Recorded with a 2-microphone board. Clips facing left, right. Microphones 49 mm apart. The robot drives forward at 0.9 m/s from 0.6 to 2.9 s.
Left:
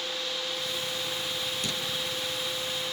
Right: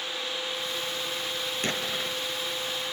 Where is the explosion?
45° right (ahead or behind); by 2.2 s 50° right (ahead or behind).